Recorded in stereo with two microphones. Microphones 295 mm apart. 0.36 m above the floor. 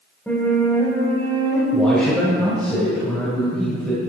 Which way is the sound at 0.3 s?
5° left (ahead or behind).